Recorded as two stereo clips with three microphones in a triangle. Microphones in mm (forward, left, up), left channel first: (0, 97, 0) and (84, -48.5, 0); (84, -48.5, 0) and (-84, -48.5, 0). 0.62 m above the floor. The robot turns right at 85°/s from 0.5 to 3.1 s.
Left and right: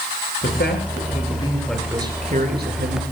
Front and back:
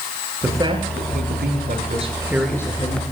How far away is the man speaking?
About 8.5 m.